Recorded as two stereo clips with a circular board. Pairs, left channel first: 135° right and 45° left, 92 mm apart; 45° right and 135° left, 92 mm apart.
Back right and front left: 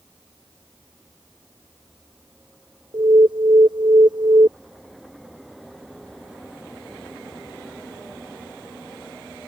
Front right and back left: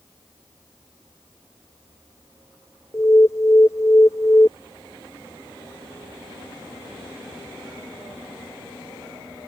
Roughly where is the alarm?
Ahead.